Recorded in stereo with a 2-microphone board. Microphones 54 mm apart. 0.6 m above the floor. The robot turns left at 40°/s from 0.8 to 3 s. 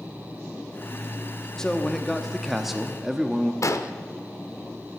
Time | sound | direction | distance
1.6 | a man speaking | 10° left (ahead or behind) | 0.9 m
3.6 | an explosion | 70° left (ahead or behind) | 0.8 m